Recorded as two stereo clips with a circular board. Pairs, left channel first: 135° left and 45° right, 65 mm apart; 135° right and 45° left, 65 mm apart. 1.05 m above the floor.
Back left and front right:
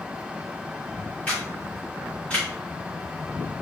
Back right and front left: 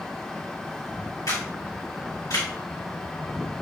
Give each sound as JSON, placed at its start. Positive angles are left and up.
{"t": 1.3, "sound": "a camera shutter", "azimuth_deg": -150, "distance_m": 2.5}